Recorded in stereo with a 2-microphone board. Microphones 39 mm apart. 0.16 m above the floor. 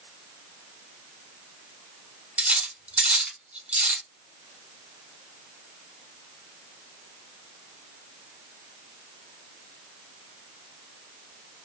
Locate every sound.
2.4 s cutlery clinking: 35° right (ahead or behind), 0.9 m